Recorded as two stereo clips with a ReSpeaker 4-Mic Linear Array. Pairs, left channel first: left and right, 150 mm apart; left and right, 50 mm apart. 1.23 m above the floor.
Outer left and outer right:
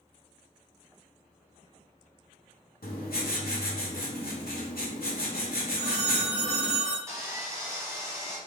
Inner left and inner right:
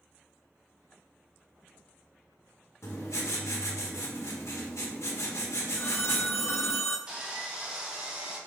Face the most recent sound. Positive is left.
turn(degrees=-20)  # may be behind; listen again after turning